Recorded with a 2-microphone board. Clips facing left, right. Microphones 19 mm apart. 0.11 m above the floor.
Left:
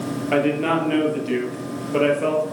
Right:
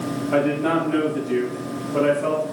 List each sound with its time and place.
0.3 s a man speaking: 55° left (ahead or behind), 1.7 m